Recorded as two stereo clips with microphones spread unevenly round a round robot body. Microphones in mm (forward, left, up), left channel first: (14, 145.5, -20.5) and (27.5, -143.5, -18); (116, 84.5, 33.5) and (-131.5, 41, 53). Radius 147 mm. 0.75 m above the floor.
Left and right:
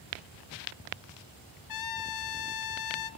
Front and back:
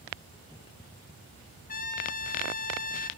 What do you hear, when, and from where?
1.7 s a trumpet: 70° left, 1.2 m